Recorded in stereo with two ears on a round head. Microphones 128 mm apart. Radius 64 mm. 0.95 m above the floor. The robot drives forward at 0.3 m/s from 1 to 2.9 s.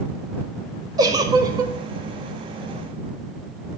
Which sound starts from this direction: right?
A giggle, at 1.0 s.